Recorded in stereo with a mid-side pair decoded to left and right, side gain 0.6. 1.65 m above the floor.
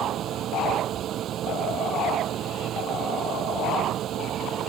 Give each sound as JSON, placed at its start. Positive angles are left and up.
{"t": 0.0, "sound": "a fan", "azimuth_deg": -55}